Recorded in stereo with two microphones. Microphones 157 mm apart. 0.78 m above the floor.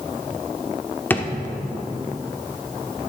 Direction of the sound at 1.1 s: 10° left (ahead or behind).